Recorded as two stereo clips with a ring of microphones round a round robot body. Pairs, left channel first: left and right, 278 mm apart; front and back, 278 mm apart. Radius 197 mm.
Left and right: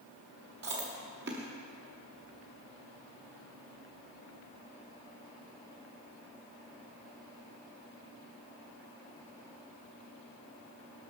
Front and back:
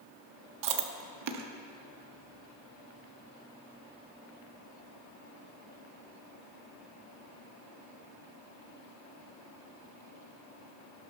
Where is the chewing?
155° right, 0.6 m.